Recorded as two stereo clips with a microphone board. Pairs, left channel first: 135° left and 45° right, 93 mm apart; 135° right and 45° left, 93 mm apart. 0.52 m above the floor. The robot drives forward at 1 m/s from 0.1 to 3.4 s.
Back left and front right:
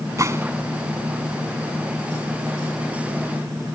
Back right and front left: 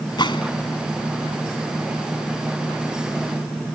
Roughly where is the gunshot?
Right.